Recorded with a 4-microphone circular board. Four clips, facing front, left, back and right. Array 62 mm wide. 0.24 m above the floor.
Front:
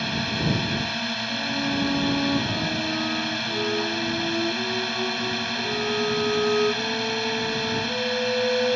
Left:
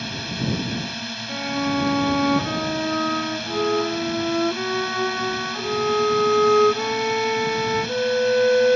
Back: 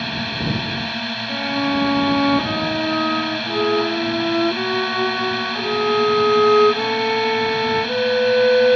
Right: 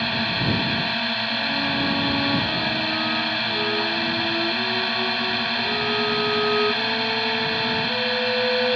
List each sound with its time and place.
0.0 s a drone: 110° right
1.3 s a violin: 155° left